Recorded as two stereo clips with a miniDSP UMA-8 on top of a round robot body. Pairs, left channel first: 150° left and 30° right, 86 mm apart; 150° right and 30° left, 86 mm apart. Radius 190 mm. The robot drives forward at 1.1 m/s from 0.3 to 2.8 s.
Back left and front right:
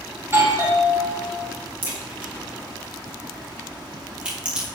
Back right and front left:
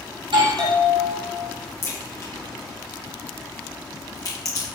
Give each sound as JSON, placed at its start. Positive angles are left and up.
{"t": 0.2, "sound": "a doorbell", "azimuth_deg": 25, "distance_m": 6.5}
{"t": 1.8, "sound": "a crack", "azimuth_deg": -95, "distance_m": 4.5}